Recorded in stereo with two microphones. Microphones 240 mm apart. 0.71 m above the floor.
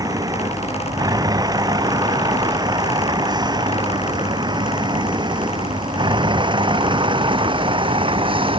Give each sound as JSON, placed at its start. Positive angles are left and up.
{"t": 0.0, "sound": "a vehicle", "side_deg": -15}